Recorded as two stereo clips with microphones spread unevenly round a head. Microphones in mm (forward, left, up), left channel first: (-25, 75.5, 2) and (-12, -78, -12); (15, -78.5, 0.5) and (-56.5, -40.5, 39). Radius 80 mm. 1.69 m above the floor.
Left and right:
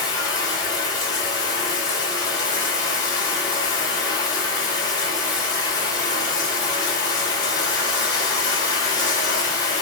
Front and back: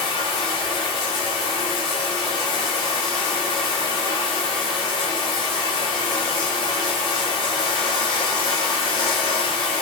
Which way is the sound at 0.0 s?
30° left.